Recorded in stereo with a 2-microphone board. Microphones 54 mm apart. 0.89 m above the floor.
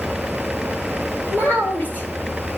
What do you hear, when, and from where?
1.3 s a child speaking: 35° left (ahead or behind), 1.8 m